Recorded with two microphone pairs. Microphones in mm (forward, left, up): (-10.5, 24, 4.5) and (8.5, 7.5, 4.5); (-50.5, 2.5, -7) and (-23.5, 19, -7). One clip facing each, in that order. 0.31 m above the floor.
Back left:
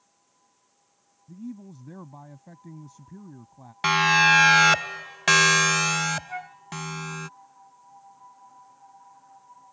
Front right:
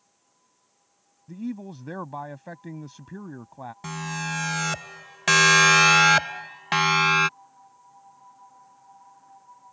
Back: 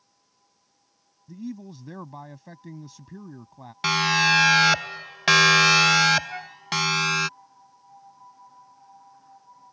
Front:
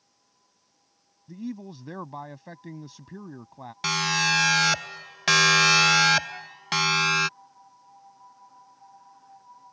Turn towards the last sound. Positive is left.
turn(degrees=160)